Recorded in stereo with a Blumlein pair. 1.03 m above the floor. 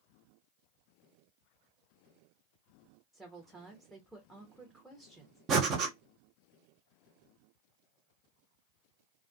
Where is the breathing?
30° right, 0.8 m.